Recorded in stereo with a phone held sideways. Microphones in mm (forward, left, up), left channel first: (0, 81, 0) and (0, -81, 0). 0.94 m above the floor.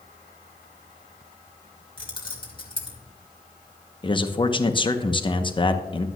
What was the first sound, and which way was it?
Keys jangling, 30° left (ahead or behind).